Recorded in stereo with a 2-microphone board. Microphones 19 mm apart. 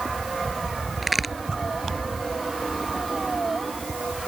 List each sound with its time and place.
1.0 s a crack: 10° right (ahead or behind)